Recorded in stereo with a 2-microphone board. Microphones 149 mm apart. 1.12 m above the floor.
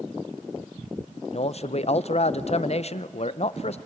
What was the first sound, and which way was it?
A man speaking, 50° left (ahead or behind).